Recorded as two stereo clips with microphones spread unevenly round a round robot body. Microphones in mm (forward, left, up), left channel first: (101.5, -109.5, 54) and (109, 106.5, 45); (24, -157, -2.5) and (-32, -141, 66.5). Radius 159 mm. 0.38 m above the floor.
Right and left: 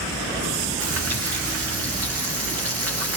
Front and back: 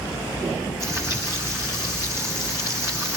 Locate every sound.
0.8 s frying: 85° left, 7 m